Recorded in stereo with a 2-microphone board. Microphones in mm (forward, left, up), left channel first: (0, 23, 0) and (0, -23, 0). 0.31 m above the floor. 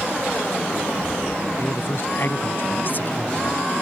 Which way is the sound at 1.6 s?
60° left (ahead or behind).